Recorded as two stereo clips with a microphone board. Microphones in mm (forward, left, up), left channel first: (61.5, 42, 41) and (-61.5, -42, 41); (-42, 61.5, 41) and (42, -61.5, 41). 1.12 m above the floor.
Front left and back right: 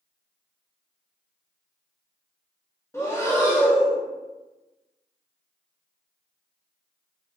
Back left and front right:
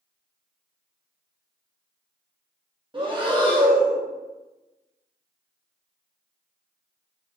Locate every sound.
2.9 s breathing: 25° right, 0.7 m